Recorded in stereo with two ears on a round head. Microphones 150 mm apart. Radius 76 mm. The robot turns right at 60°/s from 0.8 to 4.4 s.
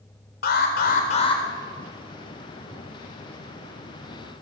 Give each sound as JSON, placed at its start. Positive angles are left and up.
{"t": 0.4, "sound": "an alarm", "azimuth_deg": 115, "distance_m": 4.0}